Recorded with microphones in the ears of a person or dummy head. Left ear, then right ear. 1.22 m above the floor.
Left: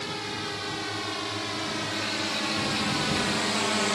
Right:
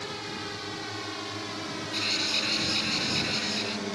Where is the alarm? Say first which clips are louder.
Right 6 dB; 35° right (ahead or behind).